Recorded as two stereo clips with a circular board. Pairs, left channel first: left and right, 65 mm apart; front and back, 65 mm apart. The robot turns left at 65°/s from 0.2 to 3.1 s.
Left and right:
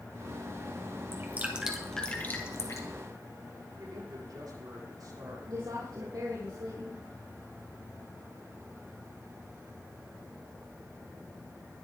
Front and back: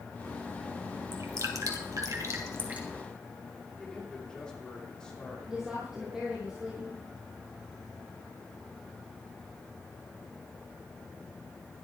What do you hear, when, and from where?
1.1 s dripping: 135° right, 2 m; by 2.9 s 110° left, 2 m
3.8 s a man speaking: 75° right, 6 m
5.5 s a woman speaking: 100° right, 3.5 m